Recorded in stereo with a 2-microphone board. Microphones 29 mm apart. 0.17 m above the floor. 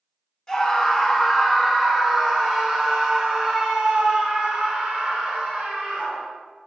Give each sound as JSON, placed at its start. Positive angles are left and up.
{"t": 0.5, "sound": "a scream", "side_deg": 20, "distance_m": 1.9}